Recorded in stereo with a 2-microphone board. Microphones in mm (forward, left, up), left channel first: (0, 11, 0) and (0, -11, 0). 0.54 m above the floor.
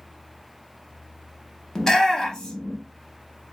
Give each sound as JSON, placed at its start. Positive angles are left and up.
{"t": 1.8, "sound": "a shout", "side_deg": 30, "distance_m": 0.8}